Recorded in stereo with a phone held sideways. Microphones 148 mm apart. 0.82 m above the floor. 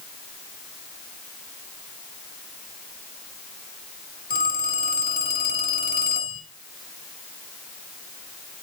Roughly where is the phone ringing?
Left.